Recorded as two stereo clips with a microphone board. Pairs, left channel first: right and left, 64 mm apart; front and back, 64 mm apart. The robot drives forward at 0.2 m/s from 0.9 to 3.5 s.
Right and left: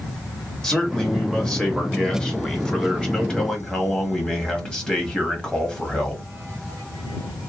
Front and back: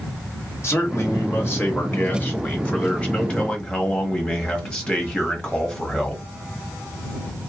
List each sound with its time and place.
0.6 s a man speaking: 15° right, 1.1 m; by 6.2 s 45° right, 0.9 m